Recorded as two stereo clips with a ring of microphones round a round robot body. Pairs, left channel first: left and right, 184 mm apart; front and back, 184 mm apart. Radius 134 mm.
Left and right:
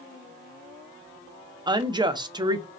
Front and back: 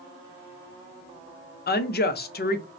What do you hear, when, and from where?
1.7 s a woman speaking: 25° right, 0.6 m